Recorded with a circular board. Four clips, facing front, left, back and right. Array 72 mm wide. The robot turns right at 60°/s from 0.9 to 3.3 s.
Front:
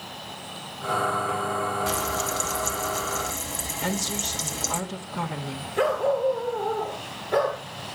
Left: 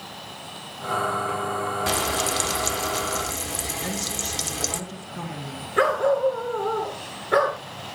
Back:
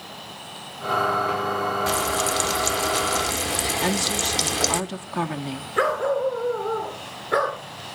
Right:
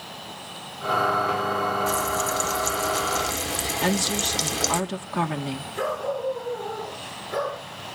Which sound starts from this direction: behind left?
A dog barking, at 5.8 s.